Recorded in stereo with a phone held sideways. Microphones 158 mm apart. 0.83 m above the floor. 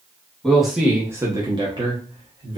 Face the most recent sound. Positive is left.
turn(degrees=-30)  # may be behind; listen again after turning